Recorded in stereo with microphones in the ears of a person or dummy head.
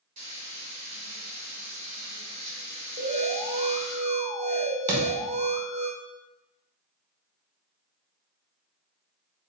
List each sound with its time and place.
0.2 s frying: 45° right (ahead or behind), 2 m
3.0 s an alarm: 30° right (ahead or behind), 1.4 m
4.9 s a thud: 20° right (ahead or behind), 2.0 m